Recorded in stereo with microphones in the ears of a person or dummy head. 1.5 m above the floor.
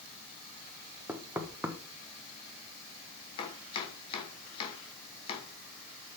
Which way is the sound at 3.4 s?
30° left (ahead or behind).